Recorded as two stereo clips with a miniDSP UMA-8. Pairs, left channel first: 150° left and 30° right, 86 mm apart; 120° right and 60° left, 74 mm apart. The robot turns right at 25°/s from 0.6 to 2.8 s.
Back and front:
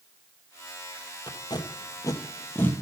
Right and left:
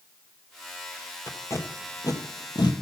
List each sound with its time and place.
1.3 s tape being pulled: straight behind, 1.3 m; by 2.7 s 145° right, 1.3 m